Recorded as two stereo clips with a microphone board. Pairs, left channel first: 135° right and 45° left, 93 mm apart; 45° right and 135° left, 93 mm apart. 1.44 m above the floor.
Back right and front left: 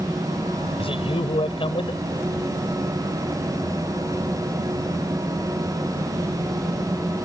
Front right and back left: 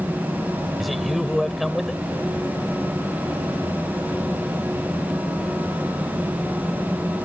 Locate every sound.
0.8 s a man speaking: 135° right